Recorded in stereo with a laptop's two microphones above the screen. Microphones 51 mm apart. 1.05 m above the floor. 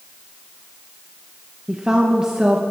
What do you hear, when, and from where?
1.7 s a woman speaking: 15° right (ahead or behind), 1.0 m